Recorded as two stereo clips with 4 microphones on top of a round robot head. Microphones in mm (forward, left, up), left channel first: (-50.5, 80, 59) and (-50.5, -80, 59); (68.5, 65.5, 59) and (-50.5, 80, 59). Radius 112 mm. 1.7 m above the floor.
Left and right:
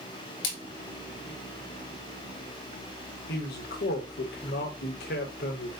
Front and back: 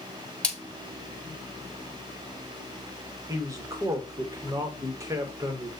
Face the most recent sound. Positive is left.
turn(degrees=110)